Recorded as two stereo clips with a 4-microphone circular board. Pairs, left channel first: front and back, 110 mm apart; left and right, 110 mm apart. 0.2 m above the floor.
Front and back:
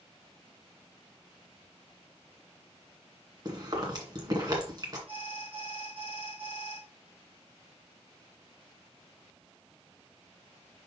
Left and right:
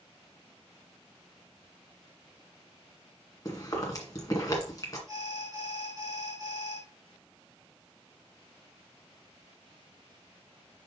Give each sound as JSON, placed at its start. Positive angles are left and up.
{"t": 3.5, "sound": "chewing", "azimuth_deg": 140, "distance_m": 2.0}
{"t": 5.1, "sound": "an alarm", "azimuth_deg": -145, "distance_m": 4.5}